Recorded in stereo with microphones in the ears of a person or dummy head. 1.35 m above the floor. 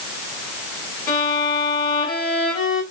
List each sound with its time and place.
1.1 s a violin: 45° left (ahead or behind), 3 m